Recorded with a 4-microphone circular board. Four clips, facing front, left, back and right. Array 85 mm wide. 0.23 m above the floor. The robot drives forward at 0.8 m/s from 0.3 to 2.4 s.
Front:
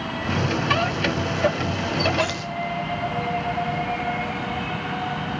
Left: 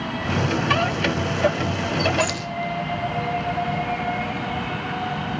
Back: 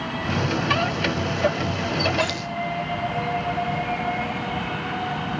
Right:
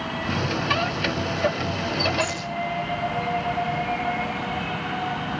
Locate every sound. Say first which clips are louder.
2.2 s keys jangling: left 3 dB, even; 150° right, 2 m